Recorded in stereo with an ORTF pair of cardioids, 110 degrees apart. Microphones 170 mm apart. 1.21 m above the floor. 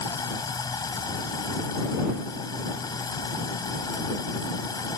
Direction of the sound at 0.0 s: 25° left.